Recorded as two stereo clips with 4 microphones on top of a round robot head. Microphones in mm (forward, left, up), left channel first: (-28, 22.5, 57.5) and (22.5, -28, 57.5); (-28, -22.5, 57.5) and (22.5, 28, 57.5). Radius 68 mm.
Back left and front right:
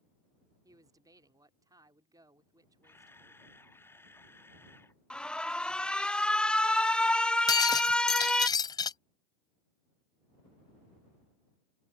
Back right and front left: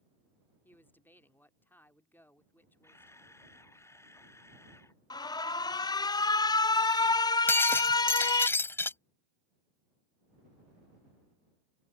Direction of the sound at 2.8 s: 175° right.